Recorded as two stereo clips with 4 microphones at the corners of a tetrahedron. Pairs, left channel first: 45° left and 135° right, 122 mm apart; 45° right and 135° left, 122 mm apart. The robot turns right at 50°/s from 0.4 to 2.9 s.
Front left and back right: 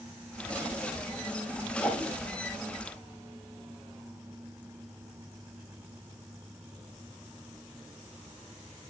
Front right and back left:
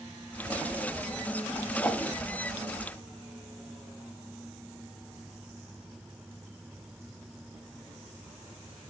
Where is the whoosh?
30° right, 1.7 m; by 2.1 s 15° right, 1.7 m.